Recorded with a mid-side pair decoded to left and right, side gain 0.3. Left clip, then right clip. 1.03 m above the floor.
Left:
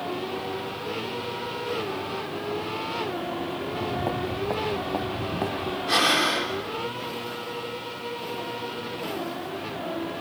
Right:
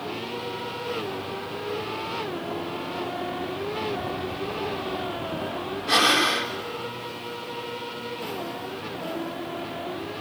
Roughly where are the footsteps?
Ahead left.